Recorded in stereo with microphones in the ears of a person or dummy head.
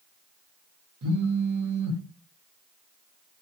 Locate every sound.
1.0 s a phone buzzing: 75° right (ahead or behind), 0.6 m